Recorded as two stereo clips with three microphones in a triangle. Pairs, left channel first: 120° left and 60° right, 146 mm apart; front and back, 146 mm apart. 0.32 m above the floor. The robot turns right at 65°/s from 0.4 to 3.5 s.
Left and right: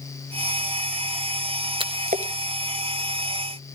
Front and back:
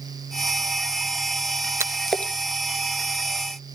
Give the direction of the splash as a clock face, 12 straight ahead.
4 o'clock.